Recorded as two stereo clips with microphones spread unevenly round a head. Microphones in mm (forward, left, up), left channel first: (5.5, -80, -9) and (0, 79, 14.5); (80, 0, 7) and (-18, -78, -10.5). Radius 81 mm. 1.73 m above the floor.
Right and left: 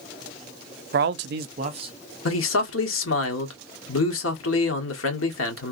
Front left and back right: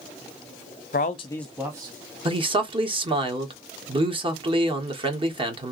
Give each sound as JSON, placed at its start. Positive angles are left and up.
{"t": 0.9, "sound": "a man speaking", "azimuth_deg": 65, "distance_m": 0.6}
{"t": 2.2, "sound": "a man speaking", "azimuth_deg": -90, "distance_m": 1.4}